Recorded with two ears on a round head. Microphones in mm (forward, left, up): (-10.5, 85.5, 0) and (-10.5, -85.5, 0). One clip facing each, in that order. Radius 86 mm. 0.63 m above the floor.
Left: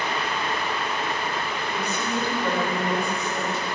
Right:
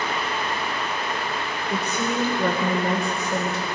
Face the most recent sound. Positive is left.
turn(degrees=-60)  # may be behind; listen again after turning